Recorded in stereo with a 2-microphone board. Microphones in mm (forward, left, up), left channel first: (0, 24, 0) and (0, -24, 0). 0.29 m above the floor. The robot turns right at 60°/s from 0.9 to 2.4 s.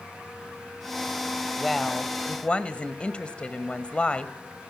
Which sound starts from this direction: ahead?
A woman speaking, at 1.6 s.